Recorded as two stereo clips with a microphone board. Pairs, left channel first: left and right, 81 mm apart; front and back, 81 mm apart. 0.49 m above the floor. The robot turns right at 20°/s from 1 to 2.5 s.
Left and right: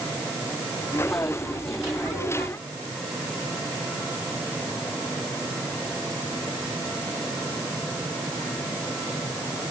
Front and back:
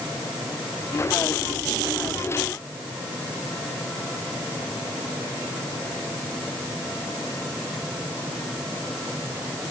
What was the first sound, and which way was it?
Only background noise.